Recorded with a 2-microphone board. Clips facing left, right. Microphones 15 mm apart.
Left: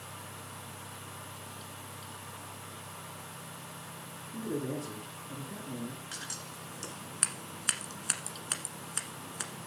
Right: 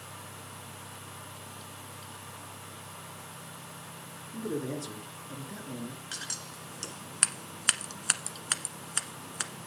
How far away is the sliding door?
I don't hear a sliding door.